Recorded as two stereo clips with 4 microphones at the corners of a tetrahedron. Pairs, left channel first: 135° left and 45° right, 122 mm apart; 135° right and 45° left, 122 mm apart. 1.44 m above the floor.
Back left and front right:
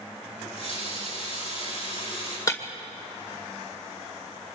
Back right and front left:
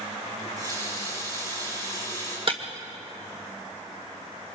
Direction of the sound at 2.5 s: 75° left.